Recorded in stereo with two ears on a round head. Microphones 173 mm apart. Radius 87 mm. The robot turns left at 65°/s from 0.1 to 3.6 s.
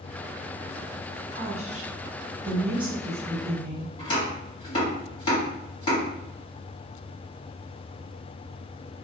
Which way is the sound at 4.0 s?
25° left (ahead or behind).